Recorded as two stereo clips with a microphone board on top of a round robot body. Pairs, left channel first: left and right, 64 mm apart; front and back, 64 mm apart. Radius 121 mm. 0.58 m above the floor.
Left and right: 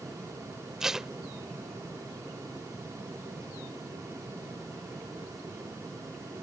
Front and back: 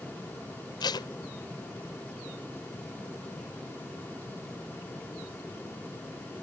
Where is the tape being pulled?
5° right.